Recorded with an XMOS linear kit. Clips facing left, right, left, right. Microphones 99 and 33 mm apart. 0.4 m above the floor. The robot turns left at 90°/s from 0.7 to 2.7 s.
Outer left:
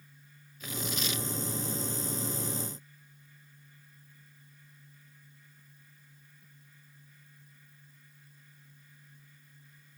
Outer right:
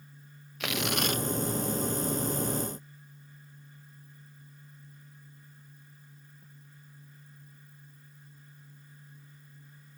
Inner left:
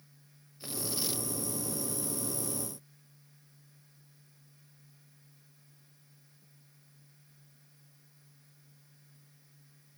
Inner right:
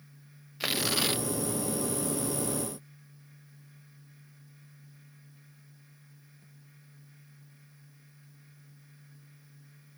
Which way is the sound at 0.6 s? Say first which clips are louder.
Outer right 7 dB, inner right 9 dB; 90° right.